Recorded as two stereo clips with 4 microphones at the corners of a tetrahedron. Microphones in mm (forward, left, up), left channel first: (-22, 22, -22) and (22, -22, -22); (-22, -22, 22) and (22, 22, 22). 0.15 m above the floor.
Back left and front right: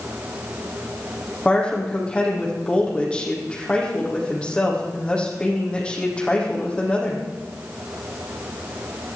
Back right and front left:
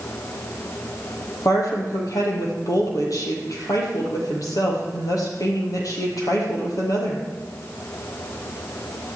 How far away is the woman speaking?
About 5 m.